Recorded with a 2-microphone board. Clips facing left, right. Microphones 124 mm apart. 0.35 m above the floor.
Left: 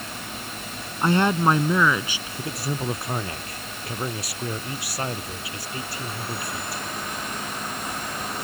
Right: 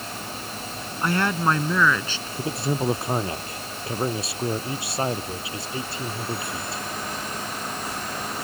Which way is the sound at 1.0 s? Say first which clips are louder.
Left 3 dB; 25° left (ahead or behind).